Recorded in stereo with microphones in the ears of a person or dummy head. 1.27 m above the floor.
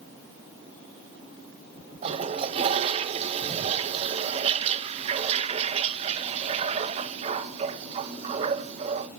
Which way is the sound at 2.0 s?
35° right (ahead or behind).